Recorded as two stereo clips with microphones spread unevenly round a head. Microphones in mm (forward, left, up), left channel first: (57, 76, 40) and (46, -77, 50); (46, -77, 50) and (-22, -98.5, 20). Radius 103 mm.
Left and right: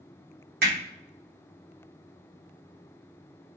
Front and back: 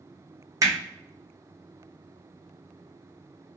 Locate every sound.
0.6 s hammering: 115° right, 0.8 m